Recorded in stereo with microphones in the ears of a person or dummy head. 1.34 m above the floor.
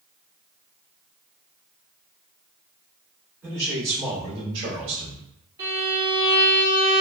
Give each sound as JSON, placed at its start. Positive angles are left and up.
{"t": 3.4, "sound": "a man speaking", "side_deg": -15, "distance_m": 1.8}
{"t": 5.6, "sound": "a violin", "side_deg": -15, "distance_m": 1.6}